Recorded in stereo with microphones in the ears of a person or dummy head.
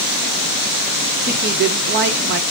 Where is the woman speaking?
55° right (ahead or behind), 0.7 m.